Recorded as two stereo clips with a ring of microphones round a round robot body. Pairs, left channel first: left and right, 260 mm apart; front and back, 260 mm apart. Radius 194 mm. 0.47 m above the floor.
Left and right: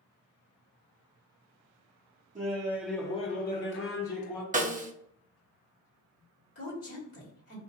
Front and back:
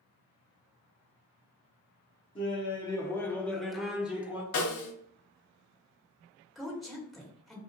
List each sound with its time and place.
2.4 s laughter: 55° right, 0.8 m; by 4.4 s 95° left, 1.3 m
4.5 s a snare drum: 25° right, 0.8 m
6.5 s a woman speaking: 90° left, 1.5 m